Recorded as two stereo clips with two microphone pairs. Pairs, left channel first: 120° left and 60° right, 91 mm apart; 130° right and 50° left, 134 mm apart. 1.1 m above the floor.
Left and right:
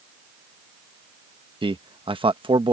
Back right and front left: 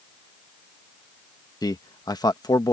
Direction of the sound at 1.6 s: 70° right.